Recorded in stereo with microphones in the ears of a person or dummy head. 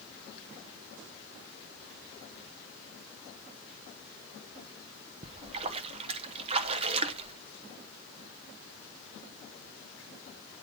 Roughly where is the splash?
Right.